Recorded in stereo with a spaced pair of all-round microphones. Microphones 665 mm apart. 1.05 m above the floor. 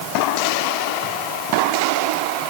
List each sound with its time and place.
Only background noise.